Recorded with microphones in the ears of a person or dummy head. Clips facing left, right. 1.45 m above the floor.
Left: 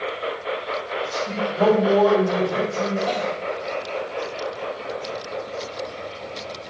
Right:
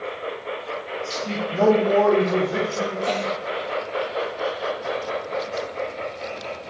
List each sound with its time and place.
1.1 s a man speaking: 75° right (ahead or behind), 1.3 m
3.1 s a cough: 30° right (ahead or behind), 0.9 m